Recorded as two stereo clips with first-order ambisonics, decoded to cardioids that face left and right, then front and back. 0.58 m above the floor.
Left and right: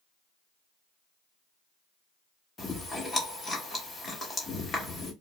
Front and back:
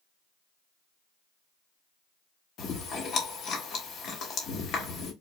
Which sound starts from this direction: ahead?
Chewing, at 2.6 s.